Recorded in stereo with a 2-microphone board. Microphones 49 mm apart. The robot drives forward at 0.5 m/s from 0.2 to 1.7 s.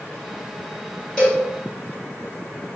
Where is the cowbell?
20° left (ahead or behind), 1.7 m; by 1.4 s 15° left (ahead or behind), 1.8 m.